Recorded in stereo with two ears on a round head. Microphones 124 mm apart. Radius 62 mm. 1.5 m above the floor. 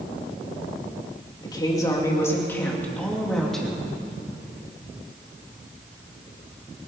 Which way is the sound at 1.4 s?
30° left (ahead or behind).